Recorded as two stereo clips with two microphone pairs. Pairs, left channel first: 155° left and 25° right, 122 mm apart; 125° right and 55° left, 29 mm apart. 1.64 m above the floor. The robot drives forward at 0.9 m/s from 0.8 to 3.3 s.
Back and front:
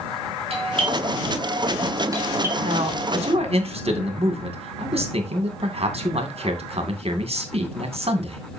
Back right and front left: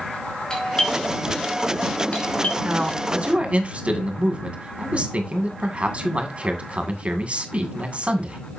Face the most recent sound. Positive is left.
turn(degrees=10)